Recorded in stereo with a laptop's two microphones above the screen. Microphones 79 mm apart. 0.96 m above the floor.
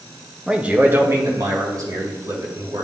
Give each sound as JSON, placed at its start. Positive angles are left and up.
{"t": 0.5, "sound": "a man speaking", "side_deg": -10, "distance_m": 0.7}